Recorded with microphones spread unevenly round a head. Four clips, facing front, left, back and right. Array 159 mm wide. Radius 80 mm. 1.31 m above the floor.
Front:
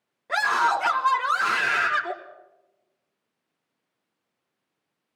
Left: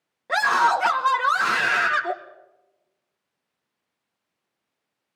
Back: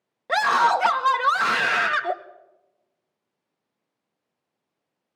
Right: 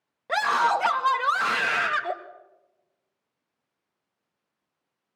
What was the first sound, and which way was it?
A scream, straight behind.